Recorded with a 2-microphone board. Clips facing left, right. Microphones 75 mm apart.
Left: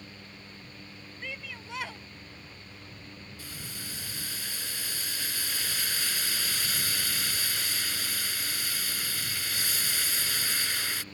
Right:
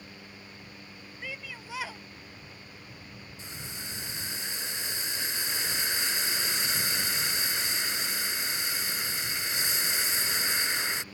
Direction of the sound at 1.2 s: Centre (ahead or behind).